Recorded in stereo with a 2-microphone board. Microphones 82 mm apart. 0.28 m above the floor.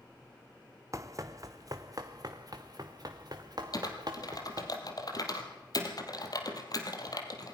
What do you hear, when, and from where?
0.9 s running footsteps: 40° right (ahead or behind), 1.0 m; by 4.7 s 55° right (ahead or behind), 3 m
3.7 s typing on a keyboard: 55° left (ahead or behind), 3 m